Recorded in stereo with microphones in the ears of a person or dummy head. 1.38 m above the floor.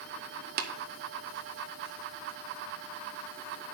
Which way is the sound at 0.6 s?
50° right (ahead or behind).